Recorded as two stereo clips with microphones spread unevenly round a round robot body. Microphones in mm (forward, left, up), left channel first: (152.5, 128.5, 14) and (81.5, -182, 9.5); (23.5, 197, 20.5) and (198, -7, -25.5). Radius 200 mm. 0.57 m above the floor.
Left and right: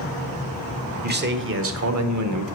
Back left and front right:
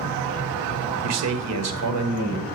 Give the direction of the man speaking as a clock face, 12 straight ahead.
1 o'clock.